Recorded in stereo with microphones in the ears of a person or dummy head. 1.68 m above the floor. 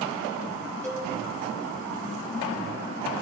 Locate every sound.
0.8 s a cowbell: 10° left (ahead or behind), 3 m